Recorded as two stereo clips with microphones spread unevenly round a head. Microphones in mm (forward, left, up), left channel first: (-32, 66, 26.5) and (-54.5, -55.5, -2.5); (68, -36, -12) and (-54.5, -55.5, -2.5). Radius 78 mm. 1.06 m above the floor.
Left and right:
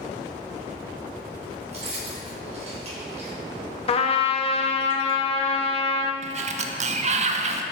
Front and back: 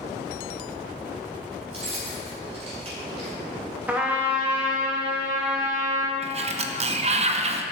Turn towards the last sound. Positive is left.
turn(degrees=-135)